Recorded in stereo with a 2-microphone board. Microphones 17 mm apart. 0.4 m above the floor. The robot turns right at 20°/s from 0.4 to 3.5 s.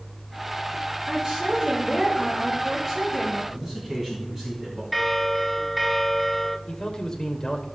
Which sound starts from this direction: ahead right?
A woman speaking, at 1.1 s.